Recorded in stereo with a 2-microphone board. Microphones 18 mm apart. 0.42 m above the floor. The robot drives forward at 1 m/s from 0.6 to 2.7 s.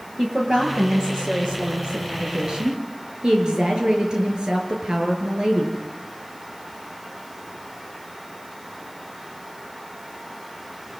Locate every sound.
0.2 s a woman speaking: 40° right (ahead or behind), 8 m; by 5.8 s 50° right (ahead or behind), 6.5 m